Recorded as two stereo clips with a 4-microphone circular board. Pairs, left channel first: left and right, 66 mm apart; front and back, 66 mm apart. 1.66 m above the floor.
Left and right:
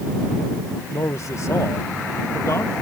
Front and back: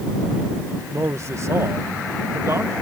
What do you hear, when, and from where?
0.9 s a man speaking: 130° left